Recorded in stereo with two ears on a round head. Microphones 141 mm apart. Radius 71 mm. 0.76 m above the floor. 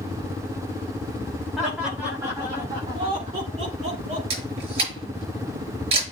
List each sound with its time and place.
1.6 s laughter: centre (ahead or behind), 1.5 m; by 4.2 s 50° right (ahead or behind), 2.5 m
4.3 s a camera shutter: 40° right (ahead or behind), 5.5 m